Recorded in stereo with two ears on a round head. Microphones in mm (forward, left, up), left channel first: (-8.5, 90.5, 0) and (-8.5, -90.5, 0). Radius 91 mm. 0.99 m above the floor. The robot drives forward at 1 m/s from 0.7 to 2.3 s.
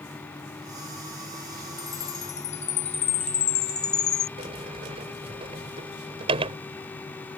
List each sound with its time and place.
1.8 s a chime: 40° left (ahead or behind); by 4.3 s 35° left (ahead or behind)
4.4 s a sliding door: 25° right (ahead or behind)